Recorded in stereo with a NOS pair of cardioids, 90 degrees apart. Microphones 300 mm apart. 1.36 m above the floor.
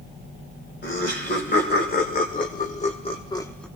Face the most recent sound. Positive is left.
turn(degrees=5)